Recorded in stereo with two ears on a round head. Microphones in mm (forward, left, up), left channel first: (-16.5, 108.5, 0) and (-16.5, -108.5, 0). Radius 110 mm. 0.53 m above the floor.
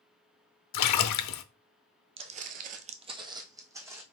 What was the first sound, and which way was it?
A splash, 75° left (ahead or behind).